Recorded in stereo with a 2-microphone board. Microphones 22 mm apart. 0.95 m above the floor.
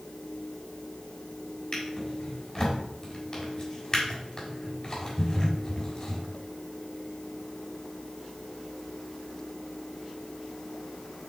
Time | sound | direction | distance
1.7 | a drawer | 35° left (ahead or behind) | 3.5 m